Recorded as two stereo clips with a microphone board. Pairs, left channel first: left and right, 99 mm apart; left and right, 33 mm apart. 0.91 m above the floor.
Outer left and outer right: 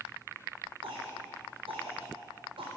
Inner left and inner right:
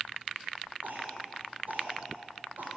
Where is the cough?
75° right (ahead or behind), 3.5 m.